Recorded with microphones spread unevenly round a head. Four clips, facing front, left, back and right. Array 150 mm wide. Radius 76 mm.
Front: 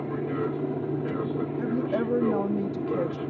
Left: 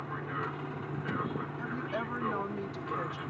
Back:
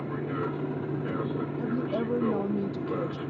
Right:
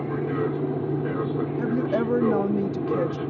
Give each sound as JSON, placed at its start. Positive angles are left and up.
{"t": 0.0, "sound": "an aircraft", "azimuth_deg": -80}
{"t": 1.6, "sound": "a woman speaking", "azimuth_deg": -70}